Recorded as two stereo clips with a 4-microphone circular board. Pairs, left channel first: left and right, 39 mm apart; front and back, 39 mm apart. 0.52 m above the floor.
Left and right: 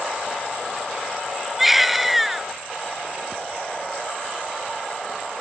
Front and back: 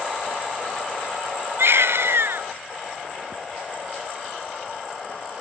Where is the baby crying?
175° right.